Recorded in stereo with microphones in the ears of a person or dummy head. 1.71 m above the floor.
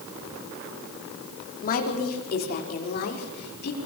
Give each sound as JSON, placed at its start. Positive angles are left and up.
{"t": 1.6, "sound": "a woman speaking", "side_deg": 45, "distance_m": 4.5}